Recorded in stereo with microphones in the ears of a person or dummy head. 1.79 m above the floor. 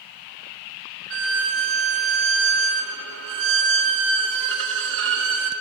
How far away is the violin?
About 1.6 m.